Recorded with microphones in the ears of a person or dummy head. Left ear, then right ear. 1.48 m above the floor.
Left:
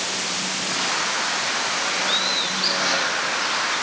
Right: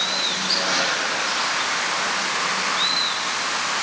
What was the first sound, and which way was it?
Only background noise.